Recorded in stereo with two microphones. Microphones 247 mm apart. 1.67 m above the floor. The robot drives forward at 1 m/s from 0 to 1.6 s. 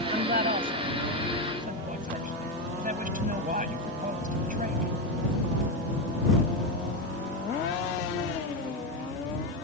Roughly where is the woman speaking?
Right.